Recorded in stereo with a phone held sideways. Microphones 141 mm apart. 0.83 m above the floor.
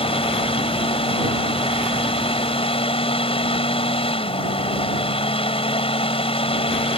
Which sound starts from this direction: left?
A fan, at 0.0 s.